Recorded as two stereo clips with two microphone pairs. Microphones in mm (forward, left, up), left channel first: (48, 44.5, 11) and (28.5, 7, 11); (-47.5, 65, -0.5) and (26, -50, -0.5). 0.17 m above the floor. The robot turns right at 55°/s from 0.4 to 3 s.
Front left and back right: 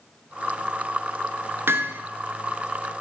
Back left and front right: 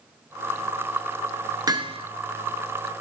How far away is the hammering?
About 0.6 m.